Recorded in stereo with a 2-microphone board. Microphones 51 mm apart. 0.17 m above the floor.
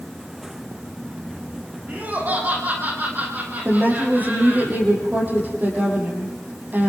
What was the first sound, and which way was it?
Laughter, 35° right (ahead or behind).